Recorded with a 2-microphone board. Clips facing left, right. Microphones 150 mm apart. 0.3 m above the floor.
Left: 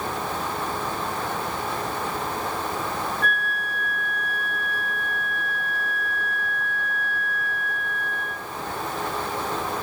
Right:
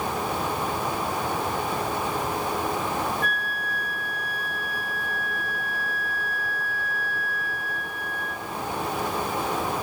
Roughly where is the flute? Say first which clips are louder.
Left 2 dB; right.